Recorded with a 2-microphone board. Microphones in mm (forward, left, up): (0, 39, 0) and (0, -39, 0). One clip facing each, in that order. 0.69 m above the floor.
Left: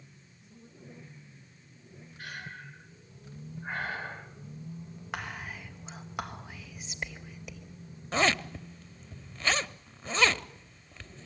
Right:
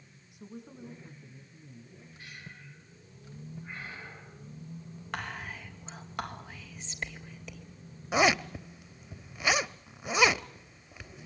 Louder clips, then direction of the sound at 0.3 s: Right 11 dB; 75° right (ahead or behind).